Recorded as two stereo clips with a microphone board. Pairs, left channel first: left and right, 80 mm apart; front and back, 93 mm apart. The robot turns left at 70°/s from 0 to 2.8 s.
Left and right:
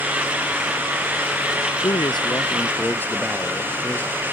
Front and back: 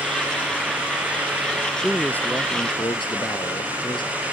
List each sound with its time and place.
1.8 s a man speaking: 95° left; by 4.1 s 25° left